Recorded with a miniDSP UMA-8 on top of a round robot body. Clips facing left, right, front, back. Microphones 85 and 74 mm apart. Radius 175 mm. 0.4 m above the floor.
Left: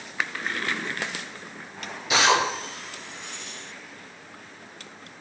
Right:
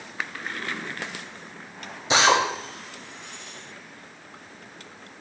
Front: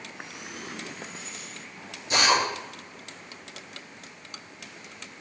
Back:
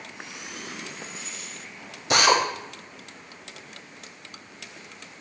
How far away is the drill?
About 1.1 m.